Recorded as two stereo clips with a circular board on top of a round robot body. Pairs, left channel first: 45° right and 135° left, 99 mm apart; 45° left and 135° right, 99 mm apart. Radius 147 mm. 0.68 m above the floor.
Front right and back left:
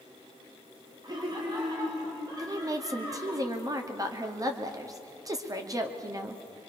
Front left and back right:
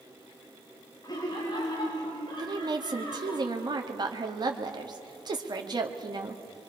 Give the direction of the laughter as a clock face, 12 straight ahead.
9 o'clock.